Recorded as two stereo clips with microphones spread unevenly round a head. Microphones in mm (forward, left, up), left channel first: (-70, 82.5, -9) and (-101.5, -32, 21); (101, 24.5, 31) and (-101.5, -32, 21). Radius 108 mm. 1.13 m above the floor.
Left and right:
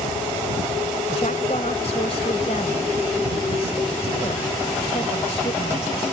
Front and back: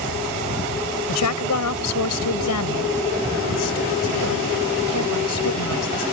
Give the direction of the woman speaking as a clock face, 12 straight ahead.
12 o'clock.